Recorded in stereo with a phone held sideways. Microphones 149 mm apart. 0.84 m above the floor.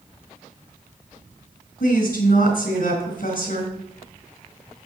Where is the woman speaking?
85° left, 3.5 m.